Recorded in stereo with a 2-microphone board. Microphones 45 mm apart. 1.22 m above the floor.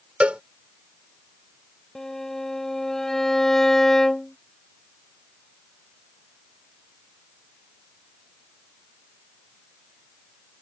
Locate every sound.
0.2 s a cowbell: 30° right (ahead or behind)
1.9 s a violin: 10° left (ahead or behind)